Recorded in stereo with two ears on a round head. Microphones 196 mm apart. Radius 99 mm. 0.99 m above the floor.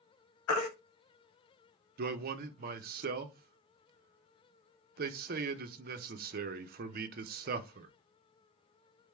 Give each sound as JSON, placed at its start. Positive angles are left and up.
{"t": 0.5, "sound": "a baby crying", "side_deg": 85, "distance_m": 0.7}
{"t": 2.0, "sound": "a man speaking", "side_deg": -45, "distance_m": 0.5}